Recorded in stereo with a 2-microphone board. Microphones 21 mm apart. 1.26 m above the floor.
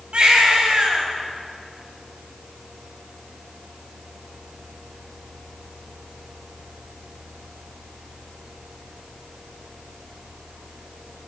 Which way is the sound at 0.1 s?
65° right (ahead or behind).